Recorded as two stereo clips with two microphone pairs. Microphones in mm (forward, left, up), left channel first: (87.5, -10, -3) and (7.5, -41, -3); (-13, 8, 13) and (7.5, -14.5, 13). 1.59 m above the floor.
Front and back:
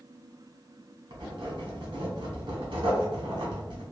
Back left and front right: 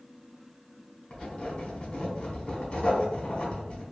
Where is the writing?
Straight behind, 1.2 m.